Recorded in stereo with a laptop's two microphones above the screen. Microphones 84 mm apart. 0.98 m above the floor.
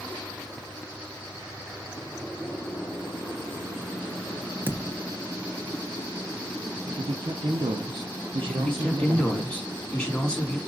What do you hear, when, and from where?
4.7 s a thud: 20° right (ahead or behind), 0.7 m
6.9 s a man speaking: 75° right (ahead or behind), 0.5 m
8.4 s a man speaking: 5° left (ahead or behind), 1.5 m